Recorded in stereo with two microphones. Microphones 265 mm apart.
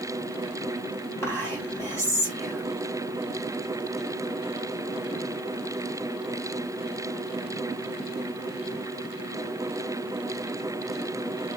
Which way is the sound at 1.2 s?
10° left (ahead or behind).